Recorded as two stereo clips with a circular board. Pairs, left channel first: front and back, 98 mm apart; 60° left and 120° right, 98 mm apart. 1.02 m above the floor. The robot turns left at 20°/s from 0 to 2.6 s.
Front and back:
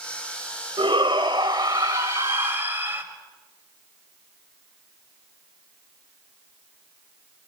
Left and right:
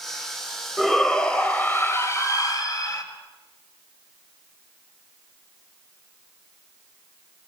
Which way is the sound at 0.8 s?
150° left.